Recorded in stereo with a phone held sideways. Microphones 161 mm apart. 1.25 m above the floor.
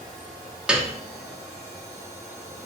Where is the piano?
5° right (ahead or behind), 0.8 m.